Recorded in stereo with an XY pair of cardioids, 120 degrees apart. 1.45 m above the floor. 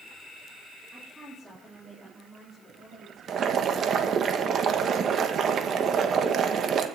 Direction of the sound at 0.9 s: 10° right.